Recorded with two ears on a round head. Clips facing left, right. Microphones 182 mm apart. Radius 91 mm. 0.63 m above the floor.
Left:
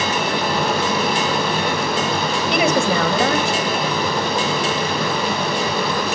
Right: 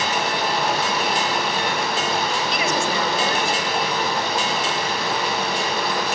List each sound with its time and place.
0.0 s running water: 70° left (ahead or behind), 8 m
2.5 s a woman speaking: 50° left (ahead or behind), 4 m